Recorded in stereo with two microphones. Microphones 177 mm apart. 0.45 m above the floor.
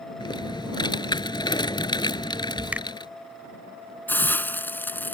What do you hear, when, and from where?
0.2 s typing on a keyboard: 25° left (ahead or behind)
2.7 s a finger snap: 10° right (ahead or behind)
4.1 s a hiss: 10° left (ahead or behind)